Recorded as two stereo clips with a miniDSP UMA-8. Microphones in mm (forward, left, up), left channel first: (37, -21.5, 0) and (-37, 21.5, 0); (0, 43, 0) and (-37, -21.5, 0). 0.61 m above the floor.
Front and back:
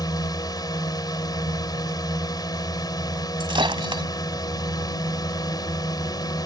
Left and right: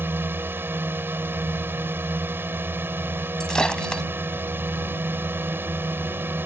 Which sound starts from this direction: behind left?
Breaking glass, at 3.4 s.